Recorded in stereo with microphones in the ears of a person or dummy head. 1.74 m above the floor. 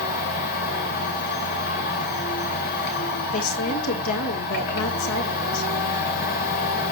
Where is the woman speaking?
85° left, 3 m.